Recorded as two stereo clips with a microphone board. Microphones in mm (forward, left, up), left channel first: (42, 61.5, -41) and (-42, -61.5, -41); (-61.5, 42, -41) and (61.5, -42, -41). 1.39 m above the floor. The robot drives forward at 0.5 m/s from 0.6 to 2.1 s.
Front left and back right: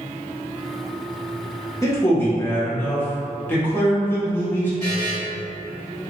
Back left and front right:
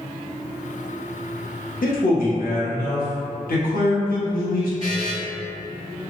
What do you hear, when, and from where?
1.8 s a man speaking: 125° left, 0.8 m; by 4.7 s 130° left, 0.9 m
4.8 s a buzzer: 175° left, 1.5 m